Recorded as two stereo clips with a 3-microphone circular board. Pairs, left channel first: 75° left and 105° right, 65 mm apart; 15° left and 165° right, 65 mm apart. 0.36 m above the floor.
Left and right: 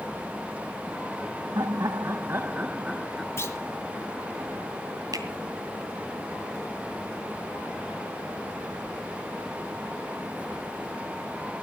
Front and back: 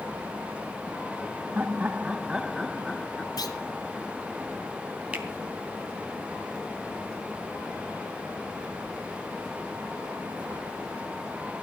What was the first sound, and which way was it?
Laughter, 105° right.